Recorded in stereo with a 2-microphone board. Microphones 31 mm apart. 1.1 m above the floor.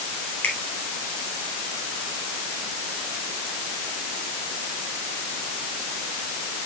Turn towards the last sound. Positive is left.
turn(degrees=60)  # may be behind; listen again after turning